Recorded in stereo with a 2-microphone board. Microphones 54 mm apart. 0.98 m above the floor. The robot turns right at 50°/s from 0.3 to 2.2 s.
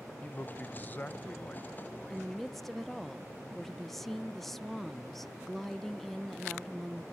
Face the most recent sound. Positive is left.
turn(degrees=5)  # may be behind; listen again after turning